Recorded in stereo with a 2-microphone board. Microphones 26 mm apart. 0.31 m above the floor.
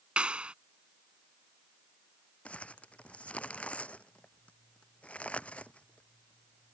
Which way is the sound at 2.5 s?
60° left (ahead or behind).